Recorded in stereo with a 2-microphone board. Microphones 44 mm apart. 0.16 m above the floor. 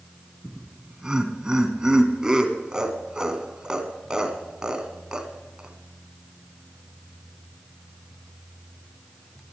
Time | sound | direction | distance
0.4 | laughter | 15° right (ahead or behind) | 1.8 m